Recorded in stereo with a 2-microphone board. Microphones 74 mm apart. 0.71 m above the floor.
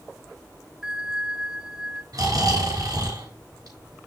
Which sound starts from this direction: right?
Snoring, at 2.1 s.